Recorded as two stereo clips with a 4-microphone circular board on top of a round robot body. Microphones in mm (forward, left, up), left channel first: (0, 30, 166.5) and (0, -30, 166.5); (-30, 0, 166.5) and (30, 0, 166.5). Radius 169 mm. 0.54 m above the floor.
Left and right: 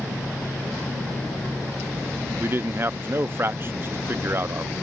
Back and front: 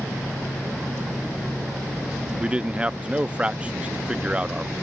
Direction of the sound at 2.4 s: 65° right.